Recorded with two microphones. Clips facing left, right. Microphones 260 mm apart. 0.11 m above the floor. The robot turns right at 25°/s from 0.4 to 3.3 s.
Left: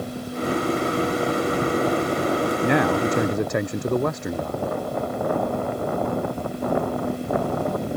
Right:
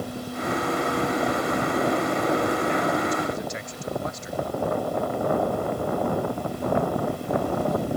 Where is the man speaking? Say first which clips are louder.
Left 4 dB; 75° left (ahead or behind); by 4.6 s 65° left (ahead or behind).